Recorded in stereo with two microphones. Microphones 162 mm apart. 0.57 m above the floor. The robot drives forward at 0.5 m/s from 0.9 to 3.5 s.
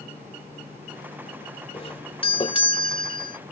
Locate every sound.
1.7 s a doorbell: 40° left (ahead or behind); by 3.4 s 30° left (ahead or behind)